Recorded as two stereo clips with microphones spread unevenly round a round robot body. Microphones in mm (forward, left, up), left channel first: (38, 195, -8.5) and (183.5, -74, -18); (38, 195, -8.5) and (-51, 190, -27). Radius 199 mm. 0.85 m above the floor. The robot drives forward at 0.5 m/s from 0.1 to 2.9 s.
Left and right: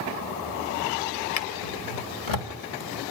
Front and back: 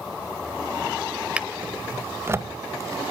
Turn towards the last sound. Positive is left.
turn(degrees=125)